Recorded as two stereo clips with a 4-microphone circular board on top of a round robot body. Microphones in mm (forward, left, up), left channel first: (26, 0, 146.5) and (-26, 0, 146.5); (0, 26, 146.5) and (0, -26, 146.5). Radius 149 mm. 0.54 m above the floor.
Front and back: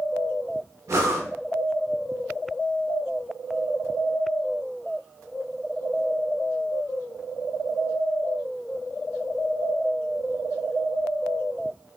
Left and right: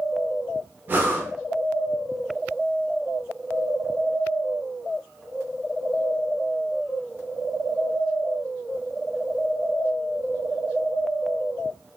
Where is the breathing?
145° right, 0.7 m.